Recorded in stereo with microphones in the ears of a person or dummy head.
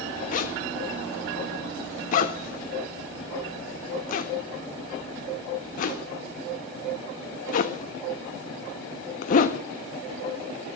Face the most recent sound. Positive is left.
turn(degrees=50)  # may be behind; listen again after turning